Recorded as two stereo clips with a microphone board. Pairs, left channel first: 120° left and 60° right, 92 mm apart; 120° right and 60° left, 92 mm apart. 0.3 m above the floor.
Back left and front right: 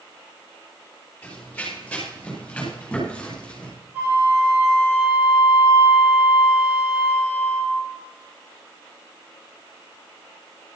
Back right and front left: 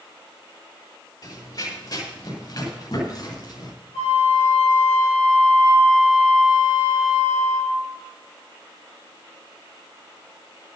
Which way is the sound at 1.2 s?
165° right.